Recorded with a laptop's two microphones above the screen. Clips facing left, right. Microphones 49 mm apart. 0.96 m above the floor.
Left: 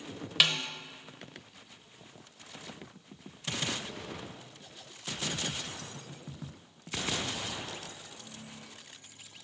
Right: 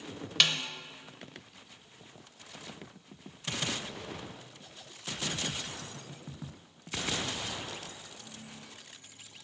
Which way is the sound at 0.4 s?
10° left (ahead or behind).